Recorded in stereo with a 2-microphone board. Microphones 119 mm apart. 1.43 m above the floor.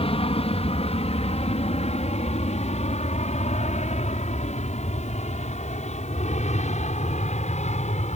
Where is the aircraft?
55° left (ahead or behind); by 8.2 s 70° left (ahead or behind).